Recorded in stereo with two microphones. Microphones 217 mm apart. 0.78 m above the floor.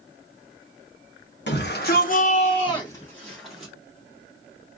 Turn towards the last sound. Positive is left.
turn(degrees=-5)  # may be behind; listen again after turning